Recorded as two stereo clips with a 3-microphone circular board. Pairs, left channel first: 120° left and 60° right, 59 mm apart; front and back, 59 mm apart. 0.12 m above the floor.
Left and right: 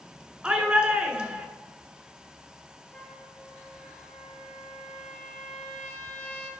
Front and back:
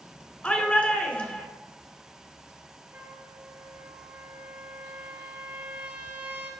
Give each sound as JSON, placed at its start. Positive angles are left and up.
{"t": 0.4, "sound": "a shout", "azimuth_deg": -10, "distance_m": 1.1}
{"t": 2.9, "sound": "a trumpet", "azimuth_deg": 165, "distance_m": 1.7}